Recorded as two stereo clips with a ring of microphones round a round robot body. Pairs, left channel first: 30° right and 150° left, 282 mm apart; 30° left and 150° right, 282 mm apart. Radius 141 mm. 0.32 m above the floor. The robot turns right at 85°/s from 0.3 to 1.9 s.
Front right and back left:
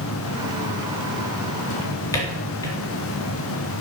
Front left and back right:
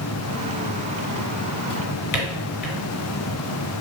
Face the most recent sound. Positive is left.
turn(degrees=50)